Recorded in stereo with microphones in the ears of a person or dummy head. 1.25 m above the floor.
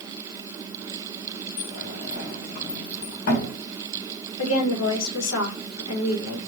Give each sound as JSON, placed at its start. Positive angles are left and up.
{"t": 1.6, "sound": "a sliding door", "side_deg": 60, "distance_m": 1.5}
{"t": 4.4, "sound": "a woman speaking", "side_deg": 75, "distance_m": 1.4}